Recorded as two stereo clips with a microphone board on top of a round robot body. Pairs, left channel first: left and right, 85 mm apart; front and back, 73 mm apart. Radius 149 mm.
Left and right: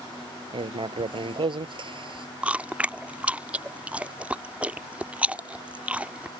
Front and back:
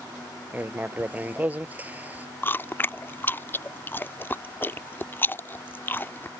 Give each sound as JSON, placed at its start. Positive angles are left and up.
{"t": 0.5, "sound": "writing", "azimuth_deg": -110}
{"t": 2.4, "sound": "chewing", "azimuth_deg": -30}